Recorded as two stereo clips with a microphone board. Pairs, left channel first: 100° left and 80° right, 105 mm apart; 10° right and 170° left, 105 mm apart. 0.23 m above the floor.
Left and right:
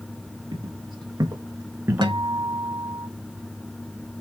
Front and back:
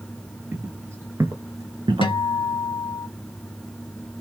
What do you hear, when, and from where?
0.5 s footsteps: 120° right, 1.5 m; by 2.1 s 155° right, 0.8 m
2.0 s a guitar: 50° right, 1.0 m